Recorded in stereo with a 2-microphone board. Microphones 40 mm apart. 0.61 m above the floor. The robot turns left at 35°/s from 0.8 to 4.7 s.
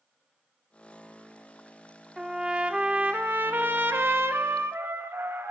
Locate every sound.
2.2 s a trumpet: 10° right, 0.6 m; by 5.5 s 100° right, 0.6 m